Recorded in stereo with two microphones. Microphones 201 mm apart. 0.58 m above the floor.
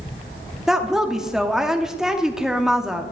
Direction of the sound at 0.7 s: Centre (ahead or behind).